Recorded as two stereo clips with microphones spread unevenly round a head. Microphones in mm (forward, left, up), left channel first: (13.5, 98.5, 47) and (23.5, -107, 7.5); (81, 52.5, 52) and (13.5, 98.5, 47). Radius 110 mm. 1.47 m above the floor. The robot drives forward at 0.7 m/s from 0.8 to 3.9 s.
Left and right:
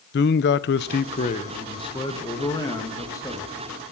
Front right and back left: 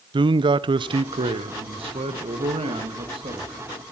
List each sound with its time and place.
0.1 s a man speaking: 125° left, 0.5 m; by 3.6 s 170° left, 2.5 m